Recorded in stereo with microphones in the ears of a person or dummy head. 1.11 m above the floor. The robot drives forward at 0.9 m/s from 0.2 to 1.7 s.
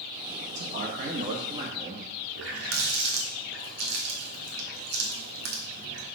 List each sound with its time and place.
0.5 s a man speaking: 60° right (ahead or behind), 1.5 m; by 2.1 s 40° right (ahead or behind), 2 m
2.4 s a running tap: 80° right, 1.4 m